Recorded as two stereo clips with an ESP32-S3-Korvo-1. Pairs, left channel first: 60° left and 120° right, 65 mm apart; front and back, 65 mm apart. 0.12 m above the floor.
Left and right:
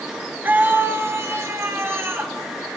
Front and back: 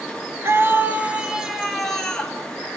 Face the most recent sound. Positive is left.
turn(degrees=-75)